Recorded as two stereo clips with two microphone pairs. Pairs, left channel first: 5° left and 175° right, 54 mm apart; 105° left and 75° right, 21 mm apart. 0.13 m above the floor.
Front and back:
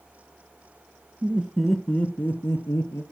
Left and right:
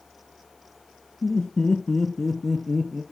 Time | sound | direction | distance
1.2 | laughter | 125° left | 1.5 m